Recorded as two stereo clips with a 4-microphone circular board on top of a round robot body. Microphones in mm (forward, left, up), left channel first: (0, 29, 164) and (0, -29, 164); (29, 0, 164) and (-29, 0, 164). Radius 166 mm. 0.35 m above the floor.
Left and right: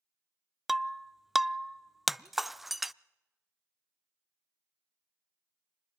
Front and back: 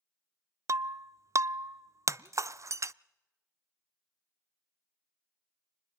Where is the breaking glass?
Straight behind, 0.5 m.